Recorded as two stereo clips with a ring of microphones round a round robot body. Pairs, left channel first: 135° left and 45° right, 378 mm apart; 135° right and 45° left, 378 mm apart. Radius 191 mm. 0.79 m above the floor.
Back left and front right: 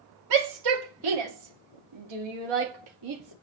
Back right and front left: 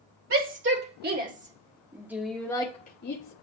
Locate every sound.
0.3 s a shout: 15° right, 3 m; by 3.3 s 85° right, 1.5 m